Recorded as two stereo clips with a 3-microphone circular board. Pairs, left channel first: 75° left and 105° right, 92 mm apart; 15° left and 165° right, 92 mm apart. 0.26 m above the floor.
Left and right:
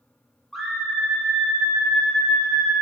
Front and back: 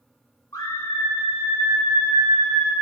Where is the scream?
20° right, 1.6 m; by 2.7 s 15° left, 3 m.